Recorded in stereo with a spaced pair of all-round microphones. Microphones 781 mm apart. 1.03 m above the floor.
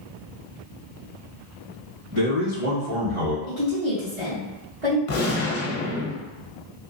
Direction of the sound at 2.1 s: 35° right (ahead or behind).